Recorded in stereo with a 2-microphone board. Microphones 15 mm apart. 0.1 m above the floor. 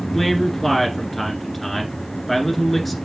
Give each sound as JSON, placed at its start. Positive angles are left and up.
{"t": 0.1, "sound": "a man speaking", "side_deg": 5, "distance_m": 1.5}